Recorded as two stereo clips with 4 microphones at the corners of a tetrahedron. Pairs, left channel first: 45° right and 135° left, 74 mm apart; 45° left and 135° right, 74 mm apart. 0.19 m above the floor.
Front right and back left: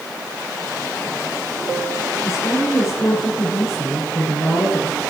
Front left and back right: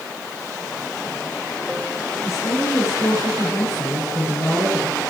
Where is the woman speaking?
5° left, 9.5 m.